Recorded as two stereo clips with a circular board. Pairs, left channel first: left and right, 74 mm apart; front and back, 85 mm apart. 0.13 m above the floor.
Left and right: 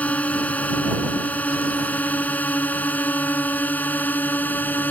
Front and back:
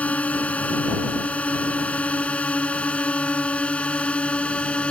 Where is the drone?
50° left; by 4.9 s 60° left.